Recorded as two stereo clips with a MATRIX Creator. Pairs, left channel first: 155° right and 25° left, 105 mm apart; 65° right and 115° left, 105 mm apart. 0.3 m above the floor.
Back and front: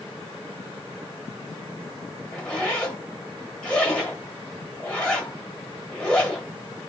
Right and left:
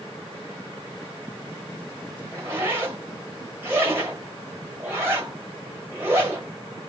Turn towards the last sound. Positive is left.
turn(degrees=135)